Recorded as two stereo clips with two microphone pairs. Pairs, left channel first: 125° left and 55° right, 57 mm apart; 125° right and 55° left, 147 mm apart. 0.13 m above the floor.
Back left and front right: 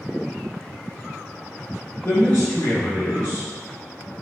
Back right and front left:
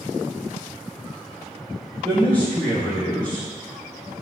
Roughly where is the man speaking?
Behind.